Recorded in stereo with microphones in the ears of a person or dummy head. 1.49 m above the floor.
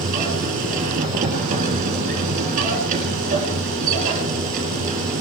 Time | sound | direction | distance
0.0 | a machine running | 40° right (ahead or behind) | 2.5 m